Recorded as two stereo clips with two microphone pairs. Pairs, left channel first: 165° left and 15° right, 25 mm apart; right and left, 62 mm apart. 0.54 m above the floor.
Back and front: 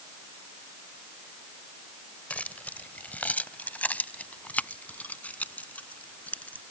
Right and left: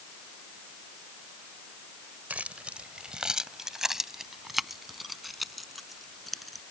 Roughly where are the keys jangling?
Behind left.